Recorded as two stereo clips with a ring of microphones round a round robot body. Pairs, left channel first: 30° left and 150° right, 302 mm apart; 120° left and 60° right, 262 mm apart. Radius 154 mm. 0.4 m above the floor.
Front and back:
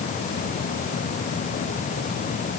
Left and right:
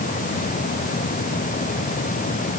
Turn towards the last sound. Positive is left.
No sound to turn to.